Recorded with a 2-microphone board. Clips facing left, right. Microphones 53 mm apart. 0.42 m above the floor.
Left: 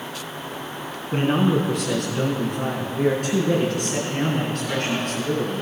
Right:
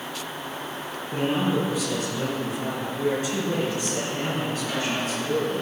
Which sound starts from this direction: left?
A man speaking, at 1.1 s.